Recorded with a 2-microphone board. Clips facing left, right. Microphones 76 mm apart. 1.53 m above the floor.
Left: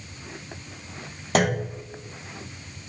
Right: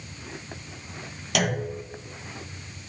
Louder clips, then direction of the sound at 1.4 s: Left 4 dB; 35° left (ahead or behind).